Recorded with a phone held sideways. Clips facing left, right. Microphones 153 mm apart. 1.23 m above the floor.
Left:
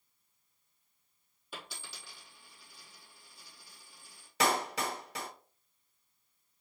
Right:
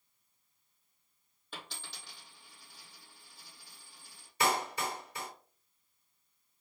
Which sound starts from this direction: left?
A clap, at 4.4 s.